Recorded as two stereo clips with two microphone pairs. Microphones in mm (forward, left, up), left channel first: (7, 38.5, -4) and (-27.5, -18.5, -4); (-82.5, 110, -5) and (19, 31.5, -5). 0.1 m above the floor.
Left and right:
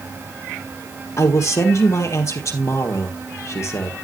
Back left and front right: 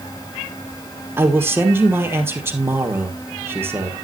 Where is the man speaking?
30° left, 2.5 m.